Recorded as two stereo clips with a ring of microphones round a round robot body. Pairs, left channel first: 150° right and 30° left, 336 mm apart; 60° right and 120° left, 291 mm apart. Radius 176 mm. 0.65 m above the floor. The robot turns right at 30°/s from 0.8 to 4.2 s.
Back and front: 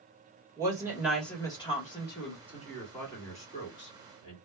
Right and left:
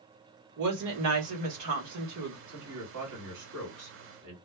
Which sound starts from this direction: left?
A woman speaking, at 0.6 s.